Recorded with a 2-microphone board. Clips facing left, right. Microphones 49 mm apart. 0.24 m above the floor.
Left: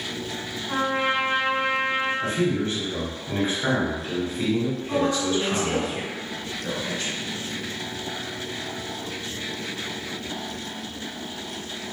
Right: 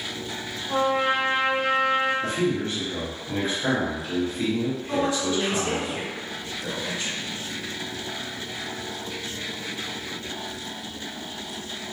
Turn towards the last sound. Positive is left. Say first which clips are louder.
# left 2 dB
turn(degrees=-5)  # may be behind; listen again after turning